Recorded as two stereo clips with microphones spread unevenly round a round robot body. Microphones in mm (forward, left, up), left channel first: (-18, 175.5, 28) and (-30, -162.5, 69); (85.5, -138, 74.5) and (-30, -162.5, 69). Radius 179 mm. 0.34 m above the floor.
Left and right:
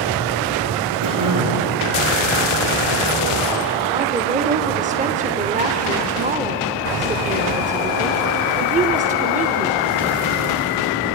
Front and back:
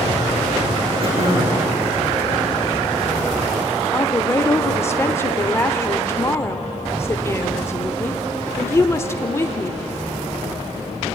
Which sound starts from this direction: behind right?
Throat clearing, at 1.0 s.